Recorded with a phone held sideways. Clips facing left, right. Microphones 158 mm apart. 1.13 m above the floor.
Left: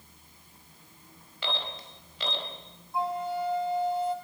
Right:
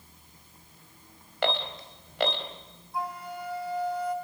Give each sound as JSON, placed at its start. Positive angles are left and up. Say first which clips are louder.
{"t": 1.4, "sound": "an alarm", "louder": "right 7 dB", "side_deg": -65, "distance_m": 4.0}
{"t": 2.9, "sound": "a flute", "louder": "left 5 dB", "side_deg": 25, "distance_m": 3.0}